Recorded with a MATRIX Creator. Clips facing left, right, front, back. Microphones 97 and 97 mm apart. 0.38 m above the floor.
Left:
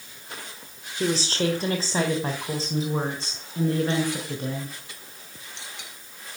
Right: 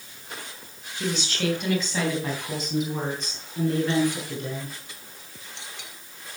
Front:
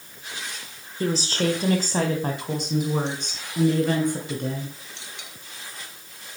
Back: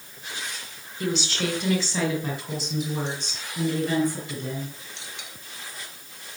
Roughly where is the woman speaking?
Ahead left.